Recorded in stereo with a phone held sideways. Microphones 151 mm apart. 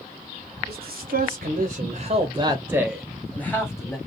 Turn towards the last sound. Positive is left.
turn(degrees=20)  # may be behind; listen again after turning